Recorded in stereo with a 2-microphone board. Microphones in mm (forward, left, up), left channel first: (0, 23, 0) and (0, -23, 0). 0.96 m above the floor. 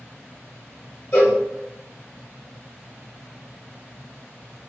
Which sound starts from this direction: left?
A cowbell, at 1.1 s.